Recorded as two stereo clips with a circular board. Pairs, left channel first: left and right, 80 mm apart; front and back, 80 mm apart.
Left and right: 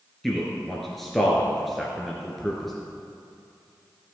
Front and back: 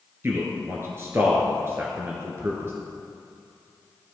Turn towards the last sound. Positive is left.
turn(degrees=180)